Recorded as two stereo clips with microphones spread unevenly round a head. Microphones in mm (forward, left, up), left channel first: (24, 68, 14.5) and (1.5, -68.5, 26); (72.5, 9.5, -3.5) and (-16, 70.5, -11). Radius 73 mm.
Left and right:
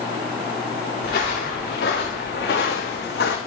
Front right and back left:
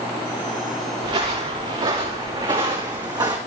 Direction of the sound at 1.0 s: 115° left.